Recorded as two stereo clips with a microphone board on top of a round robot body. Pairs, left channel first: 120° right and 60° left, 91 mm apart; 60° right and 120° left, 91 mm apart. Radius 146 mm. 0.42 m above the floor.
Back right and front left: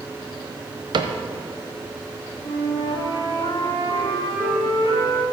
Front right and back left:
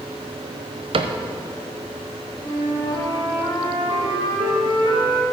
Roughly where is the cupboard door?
Left.